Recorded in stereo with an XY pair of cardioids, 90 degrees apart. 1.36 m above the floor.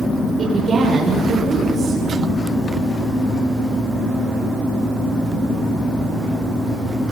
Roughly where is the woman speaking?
Ahead right.